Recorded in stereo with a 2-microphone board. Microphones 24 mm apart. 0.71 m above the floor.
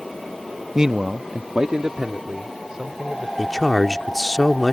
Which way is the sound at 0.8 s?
20° right (ahead or behind).